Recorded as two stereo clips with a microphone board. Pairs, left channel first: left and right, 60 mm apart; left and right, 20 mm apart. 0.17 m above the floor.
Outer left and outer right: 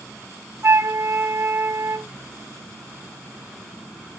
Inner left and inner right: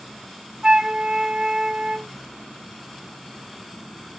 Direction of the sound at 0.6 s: 40° right (ahead or behind).